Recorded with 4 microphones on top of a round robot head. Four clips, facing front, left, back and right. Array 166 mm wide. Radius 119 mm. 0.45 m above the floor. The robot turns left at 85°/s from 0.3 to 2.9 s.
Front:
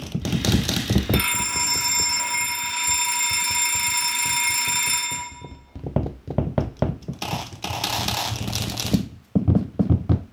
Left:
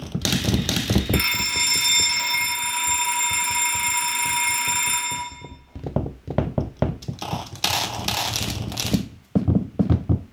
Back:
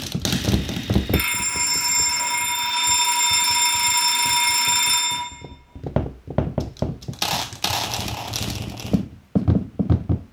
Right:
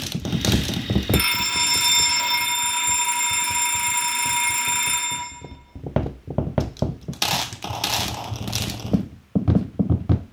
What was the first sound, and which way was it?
A fire alarm, 25° right.